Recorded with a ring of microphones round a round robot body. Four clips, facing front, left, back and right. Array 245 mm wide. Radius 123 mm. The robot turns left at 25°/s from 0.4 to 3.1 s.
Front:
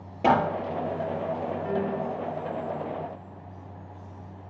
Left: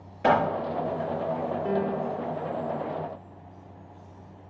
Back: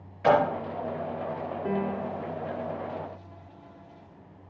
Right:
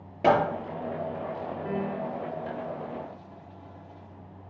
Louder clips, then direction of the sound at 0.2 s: Even, even; 40° right.